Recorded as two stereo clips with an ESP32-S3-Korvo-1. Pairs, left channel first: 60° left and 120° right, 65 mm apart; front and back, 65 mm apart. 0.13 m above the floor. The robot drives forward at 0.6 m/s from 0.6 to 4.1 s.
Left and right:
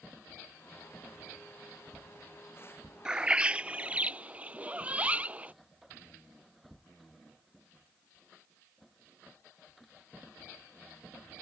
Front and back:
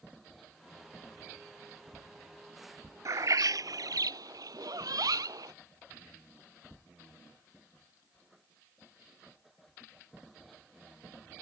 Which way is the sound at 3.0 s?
165° left.